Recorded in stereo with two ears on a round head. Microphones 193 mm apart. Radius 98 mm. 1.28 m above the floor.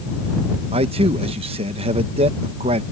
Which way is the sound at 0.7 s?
25° right (ahead or behind).